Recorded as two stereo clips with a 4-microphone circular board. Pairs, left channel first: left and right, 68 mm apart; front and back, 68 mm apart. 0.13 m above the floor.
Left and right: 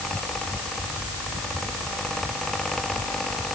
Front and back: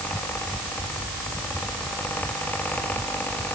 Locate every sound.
Only background noise.